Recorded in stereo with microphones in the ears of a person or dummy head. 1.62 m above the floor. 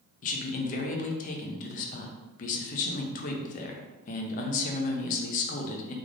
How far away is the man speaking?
About 0.7 m.